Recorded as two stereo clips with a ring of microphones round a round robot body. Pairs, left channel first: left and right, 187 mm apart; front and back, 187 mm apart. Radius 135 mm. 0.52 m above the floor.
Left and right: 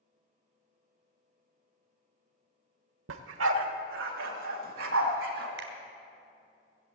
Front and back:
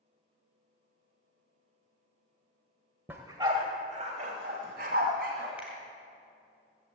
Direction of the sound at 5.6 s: 95° right.